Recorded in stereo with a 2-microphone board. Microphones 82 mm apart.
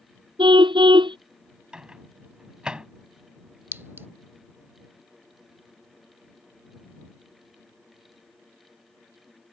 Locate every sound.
0.4 s a car horn: 80° right
1.7 s a microwave: 10° right (ahead or behind)
3.7 s a clink: 30° right (ahead or behind)